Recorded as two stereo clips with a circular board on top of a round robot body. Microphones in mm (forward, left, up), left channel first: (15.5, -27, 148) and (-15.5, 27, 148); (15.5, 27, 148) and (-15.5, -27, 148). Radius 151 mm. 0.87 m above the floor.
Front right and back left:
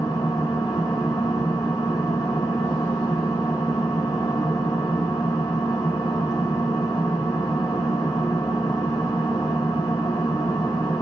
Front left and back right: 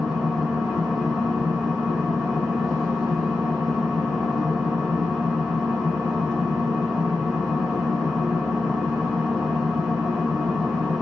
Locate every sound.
0.0 s an engine running: 40° right, 1.5 m